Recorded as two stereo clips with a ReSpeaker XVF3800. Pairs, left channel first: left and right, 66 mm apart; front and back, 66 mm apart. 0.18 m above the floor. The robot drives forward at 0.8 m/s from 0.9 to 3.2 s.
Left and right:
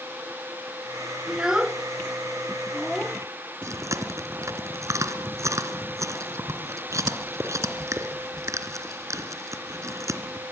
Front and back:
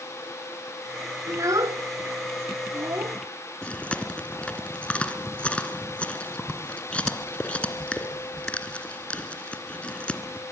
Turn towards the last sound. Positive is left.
turn(degrees=-70)